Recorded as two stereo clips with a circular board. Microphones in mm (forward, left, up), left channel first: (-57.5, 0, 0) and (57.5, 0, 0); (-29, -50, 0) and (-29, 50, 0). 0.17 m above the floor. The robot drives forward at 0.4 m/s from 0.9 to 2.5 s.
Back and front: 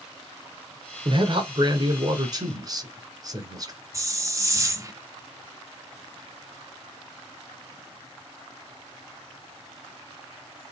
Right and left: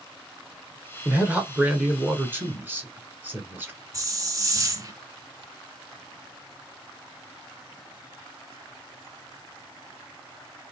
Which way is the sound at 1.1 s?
20° left.